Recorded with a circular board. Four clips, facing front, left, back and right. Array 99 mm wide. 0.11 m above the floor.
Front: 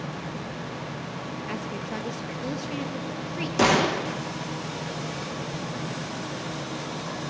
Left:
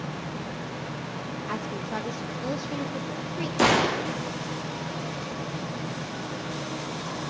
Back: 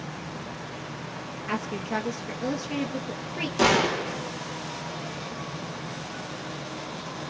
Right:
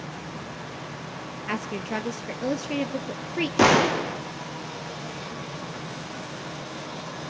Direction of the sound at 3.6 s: 65° right.